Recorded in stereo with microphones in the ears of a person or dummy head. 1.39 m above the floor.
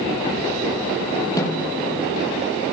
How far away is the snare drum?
About 8 m.